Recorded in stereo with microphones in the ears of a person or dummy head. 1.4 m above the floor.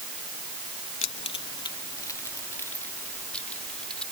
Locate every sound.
1.0 s keys jangling: 45° left (ahead or behind); by 4.0 s 5° left (ahead or behind)